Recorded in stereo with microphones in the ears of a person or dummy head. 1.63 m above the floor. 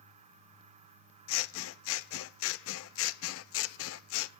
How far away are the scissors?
About 0.7 m.